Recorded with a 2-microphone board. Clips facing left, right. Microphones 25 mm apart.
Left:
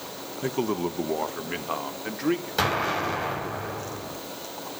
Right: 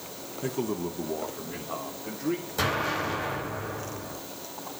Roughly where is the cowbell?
I don't hear a cowbell.